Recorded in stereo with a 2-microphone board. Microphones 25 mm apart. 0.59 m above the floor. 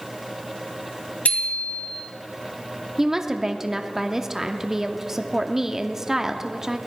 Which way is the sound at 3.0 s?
20° right (ahead or behind).